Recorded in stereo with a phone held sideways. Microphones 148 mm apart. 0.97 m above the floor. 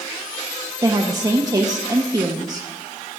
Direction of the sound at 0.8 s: 25° right (ahead or behind).